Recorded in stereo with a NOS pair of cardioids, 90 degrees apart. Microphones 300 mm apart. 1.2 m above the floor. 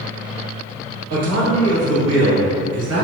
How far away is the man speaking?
About 1.5 m.